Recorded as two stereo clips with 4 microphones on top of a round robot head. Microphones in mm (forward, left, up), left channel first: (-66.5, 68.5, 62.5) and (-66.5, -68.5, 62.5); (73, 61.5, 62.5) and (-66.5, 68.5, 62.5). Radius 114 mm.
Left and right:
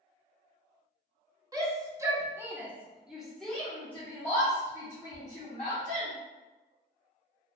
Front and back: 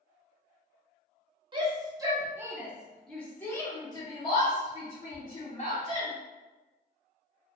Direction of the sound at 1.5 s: 145° right.